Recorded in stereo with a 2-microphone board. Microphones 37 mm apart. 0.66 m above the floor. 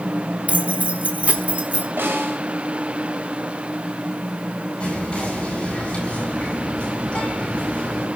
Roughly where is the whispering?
Left.